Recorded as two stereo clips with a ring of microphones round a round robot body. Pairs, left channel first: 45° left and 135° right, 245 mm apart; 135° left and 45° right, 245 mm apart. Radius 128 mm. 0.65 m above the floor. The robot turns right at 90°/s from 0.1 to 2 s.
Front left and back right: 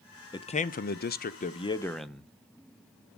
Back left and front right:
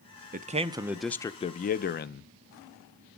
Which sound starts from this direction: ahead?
A man speaking, at 0.3 s.